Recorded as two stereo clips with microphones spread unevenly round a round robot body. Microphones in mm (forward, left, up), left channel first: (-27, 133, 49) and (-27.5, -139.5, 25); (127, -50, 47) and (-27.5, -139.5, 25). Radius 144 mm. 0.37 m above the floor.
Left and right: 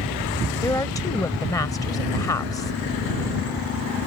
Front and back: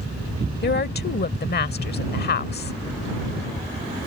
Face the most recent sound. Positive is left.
turn(degrees=10)